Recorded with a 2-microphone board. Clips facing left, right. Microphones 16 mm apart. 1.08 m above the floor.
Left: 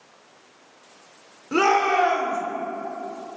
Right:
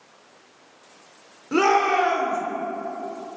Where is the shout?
10° left (ahead or behind), 3.5 m.